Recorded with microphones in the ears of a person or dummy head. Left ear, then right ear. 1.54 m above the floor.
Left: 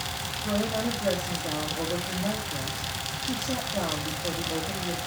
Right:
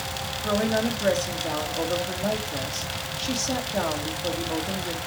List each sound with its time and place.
0.4 s a woman speaking: 65° right (ahead or behind), 2.5 m